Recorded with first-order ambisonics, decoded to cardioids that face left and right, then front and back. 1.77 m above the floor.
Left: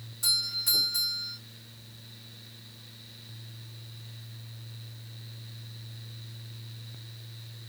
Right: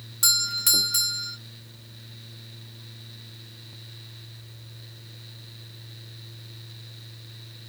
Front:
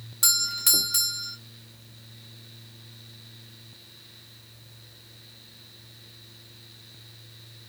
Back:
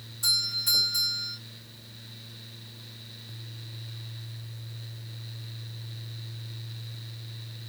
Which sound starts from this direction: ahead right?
A doorbell, at 0.2 s.